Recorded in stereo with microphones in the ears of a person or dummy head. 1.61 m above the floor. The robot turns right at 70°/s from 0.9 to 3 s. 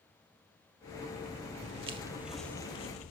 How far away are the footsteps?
About 2.0 m.